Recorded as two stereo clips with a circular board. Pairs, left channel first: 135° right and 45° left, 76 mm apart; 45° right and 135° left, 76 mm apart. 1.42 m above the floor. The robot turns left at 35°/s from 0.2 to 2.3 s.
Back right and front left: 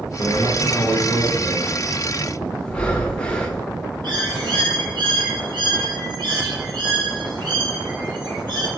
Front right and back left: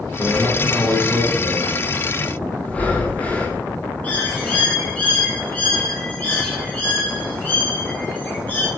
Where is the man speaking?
85° left, 1.7 m; by 1.7 s 30° left, 1.7 m.